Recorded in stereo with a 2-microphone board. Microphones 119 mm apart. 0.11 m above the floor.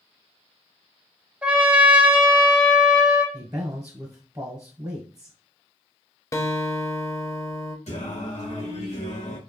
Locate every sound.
1.4 s a trumpet: 10° right (ahead or behind), 0.9 m
3.3 s a man speaking: 25° right (ahead or behind), 1.2 m
6.3 s a guitar: 30° left (ahead or behind), 0.6 m
7.9 s singing: 75° left (ahead or behind), 1.7 m